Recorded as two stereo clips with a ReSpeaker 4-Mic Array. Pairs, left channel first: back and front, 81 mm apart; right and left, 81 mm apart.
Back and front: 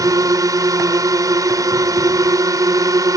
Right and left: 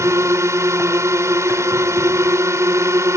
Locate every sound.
0.0 s a drone: 40° left